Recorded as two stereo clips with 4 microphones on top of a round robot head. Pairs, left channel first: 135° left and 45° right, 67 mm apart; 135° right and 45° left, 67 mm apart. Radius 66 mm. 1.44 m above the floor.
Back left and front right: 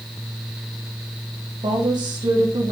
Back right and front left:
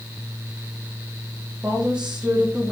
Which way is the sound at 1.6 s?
30° right.